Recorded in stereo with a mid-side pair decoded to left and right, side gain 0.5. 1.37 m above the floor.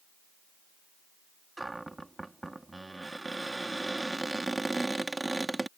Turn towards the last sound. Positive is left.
turn(degrees=-15)